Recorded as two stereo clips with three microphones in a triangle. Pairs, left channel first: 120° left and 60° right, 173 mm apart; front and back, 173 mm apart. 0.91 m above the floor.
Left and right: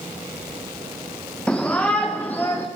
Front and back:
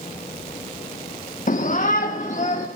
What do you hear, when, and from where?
1.5 s a shout: 35° left, 1.3 m; by 2.7 s 40° left, 2 m